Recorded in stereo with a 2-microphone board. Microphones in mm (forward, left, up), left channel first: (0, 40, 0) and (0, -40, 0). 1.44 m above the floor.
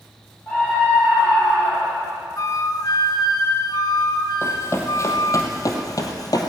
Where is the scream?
25° left (ahead or behind), 8.5 m.